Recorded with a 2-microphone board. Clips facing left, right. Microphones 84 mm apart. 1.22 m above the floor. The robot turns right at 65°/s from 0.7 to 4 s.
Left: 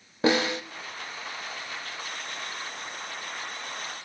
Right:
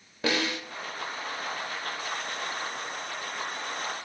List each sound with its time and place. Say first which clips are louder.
0.2 s a snare drum: left 5 dB; 25° left (ahead or behind), 1.0 m